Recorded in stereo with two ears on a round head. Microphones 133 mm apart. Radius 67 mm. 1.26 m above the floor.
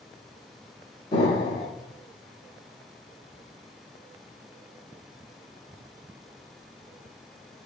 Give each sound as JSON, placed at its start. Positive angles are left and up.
{"t": 1.1, "sound": "an explosion", "side_deg": 40, "distance_m": 2.0}